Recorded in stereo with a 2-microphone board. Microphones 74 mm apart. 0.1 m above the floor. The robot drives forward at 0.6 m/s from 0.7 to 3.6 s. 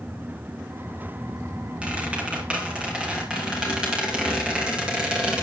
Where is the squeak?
15° right (ahead or behind), 4.5 m; by 5.4 s 10° right (ahead or behind), 5.5 m.